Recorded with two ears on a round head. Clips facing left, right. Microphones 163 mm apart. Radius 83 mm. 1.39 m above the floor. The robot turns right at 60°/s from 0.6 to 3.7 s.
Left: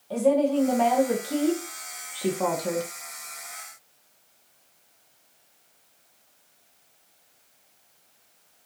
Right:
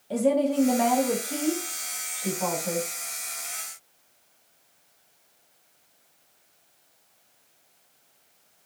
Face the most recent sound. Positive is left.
turn(degrees=165)